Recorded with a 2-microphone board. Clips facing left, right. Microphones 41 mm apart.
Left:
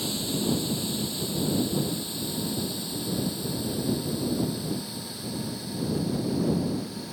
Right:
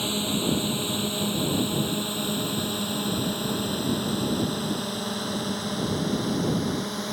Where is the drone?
40° right (ahead or behind); by 7.1 s 65° right (ahead or behind).